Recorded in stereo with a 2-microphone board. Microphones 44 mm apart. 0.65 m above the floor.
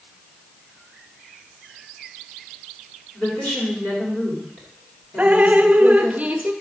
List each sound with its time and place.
3.1 s a woman speaking: 50° left (ahead or behind), 2.5 m
5.2 s dripping: 35° right (ahead or behind), 0.6 m